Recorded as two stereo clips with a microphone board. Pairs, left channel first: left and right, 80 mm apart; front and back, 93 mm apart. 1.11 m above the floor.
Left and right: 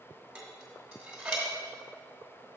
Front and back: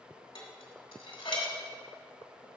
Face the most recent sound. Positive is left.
turn(degrees=-10)